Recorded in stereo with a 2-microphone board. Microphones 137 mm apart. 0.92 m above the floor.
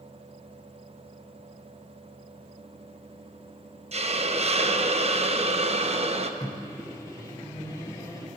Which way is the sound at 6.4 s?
25° left (ahead or behind).